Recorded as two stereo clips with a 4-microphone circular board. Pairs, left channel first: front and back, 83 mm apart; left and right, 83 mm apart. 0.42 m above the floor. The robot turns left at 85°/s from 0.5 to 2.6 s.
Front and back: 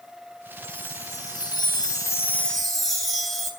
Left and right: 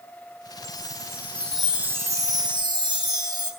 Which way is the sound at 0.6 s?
85° left.